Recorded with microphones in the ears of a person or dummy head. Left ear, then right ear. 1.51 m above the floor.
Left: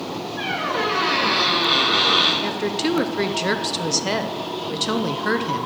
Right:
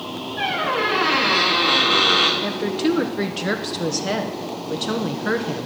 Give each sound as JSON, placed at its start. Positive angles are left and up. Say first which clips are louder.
{"t": 0.4, "sound": "a squeak", "louder": "right 2 dB", "side_deg": -10, "distance_m": 1.2}
{"t": 2.4, "sound": "a woman speaking", "louder": "even", "side_deg": 20, "distance_m": 0.9}